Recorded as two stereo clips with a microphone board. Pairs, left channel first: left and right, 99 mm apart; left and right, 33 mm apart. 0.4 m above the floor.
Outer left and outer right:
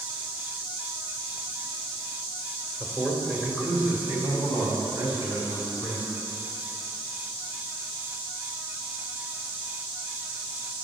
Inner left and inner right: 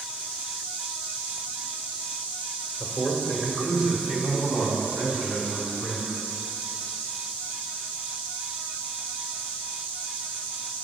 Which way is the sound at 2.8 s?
5° right (ahead or behind).